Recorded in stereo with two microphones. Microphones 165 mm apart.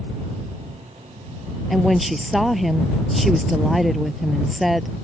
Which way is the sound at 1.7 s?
Centre (ahead or behind).